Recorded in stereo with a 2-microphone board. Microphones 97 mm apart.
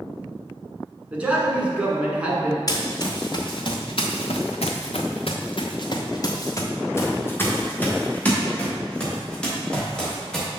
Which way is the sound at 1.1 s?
15° right (ahead or behind).